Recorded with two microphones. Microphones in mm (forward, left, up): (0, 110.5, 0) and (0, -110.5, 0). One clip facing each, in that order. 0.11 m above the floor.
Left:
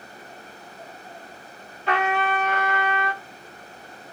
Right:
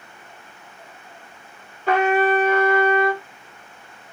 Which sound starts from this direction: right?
A trumpet, at 1.9 s.